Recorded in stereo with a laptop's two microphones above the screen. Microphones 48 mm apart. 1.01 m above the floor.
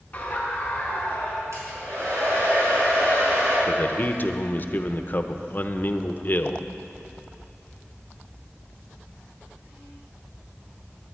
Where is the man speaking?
40° left (ahead or behind), 0.7 m.